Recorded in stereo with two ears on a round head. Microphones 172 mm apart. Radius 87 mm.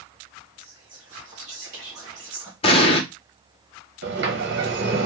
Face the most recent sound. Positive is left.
turn(degrees=-60)  # may be behind; listen again after turning